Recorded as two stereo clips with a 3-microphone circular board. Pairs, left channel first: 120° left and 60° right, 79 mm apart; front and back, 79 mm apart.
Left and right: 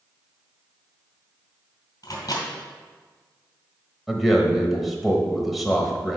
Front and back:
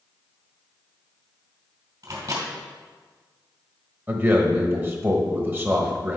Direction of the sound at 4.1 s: 150° right.